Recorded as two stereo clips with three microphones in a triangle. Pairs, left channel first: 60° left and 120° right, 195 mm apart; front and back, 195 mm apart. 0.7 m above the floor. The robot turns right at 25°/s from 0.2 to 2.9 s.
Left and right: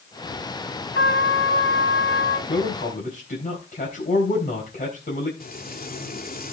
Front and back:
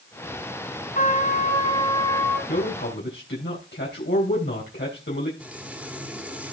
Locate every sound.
0.9 s a trumpet: 45° left, 1.9 m; by 2.4 s 80° left, 1.9 m
2.5 s a man speaking: 5° left, 3.5 m; by 5.3 s 15° left, 3.5 m
5.4 s frying: 100° left, 2 m